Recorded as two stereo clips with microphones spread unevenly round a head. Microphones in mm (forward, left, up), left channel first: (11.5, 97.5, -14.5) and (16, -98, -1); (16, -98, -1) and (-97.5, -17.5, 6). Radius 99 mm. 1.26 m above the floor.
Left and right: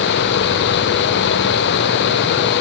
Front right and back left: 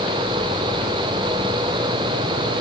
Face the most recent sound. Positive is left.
No sound to turn to.